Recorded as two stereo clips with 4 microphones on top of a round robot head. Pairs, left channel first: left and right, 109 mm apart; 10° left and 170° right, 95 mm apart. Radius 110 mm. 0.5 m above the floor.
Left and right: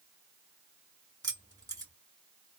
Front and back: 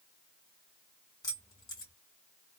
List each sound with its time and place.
1.2 s keys jangling: 35° right, 2 m